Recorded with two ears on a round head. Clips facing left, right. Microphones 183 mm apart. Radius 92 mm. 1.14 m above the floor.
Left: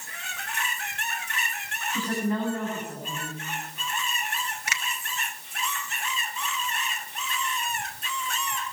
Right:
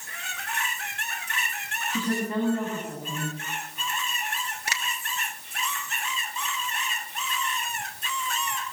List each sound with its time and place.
1.9 s a woman speaking: 85° right, 9 m
4.7 s a finger snap: 30° right (ahead or behind), 1.8 m